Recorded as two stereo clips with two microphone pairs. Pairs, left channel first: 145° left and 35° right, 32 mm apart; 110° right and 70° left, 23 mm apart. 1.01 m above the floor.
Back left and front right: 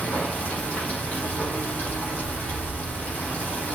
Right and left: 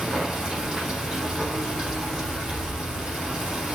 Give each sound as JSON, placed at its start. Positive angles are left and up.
{"t": 0.0, "sound": "running water", "azimuth_deg": 110, "distance_m": 6.0}